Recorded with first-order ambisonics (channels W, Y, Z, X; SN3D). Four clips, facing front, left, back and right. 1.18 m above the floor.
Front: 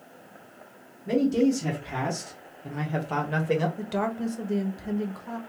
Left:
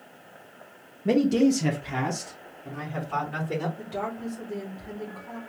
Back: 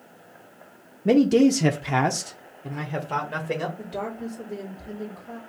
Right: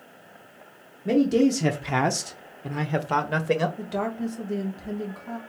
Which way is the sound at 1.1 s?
170° left.